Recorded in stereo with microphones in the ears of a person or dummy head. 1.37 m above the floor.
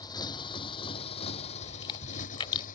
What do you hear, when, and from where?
0.0 s a motorcycle: 25° left (ahead or behind); by 2.8 s 45° left (ahead or behind)
1.6 s chewing: 25° left (ahead or behind)